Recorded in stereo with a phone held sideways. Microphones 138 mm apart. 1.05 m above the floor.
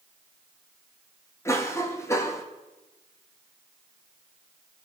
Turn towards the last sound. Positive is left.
turn(degrees=20)  # may be behind; listen again after turning